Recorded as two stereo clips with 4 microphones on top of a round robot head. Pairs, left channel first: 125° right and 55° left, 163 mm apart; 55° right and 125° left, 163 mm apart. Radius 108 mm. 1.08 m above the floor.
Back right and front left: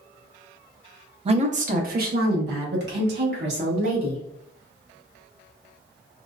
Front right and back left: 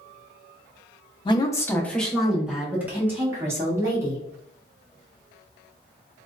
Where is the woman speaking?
5° left, 0.6 m; by 4.2 s 55° left, 1.9 m.